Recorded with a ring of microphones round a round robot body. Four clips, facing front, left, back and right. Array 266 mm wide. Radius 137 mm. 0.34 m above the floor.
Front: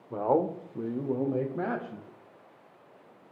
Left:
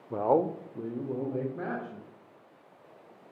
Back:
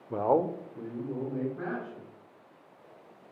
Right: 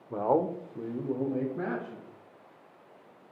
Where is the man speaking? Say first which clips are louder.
Left 1 dB, even; 150° left, 1.0 m; by 2.1 s 5° right, 2.5 m.